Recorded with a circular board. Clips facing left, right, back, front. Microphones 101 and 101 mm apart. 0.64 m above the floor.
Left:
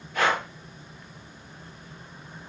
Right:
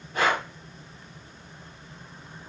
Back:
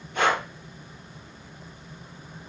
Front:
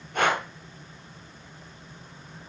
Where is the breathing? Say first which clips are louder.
Even, back 1 dB; 35° right, 2 m.